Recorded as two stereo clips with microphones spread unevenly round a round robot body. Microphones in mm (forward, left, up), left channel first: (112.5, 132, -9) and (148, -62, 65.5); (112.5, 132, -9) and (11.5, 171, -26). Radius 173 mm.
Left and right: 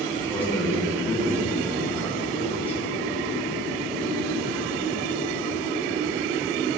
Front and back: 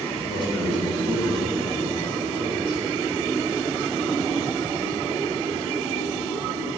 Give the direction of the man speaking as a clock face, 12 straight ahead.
11 o'clock.